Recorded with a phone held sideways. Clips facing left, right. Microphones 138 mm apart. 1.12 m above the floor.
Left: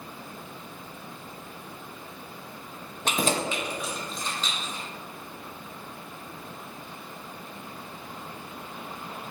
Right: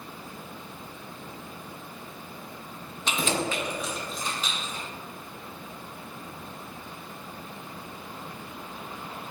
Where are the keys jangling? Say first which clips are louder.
Left 1 dB; 55° left (ahead or behind), 0.5 m; by 4.8 s 15° right (ahead or behind), 1.6 m.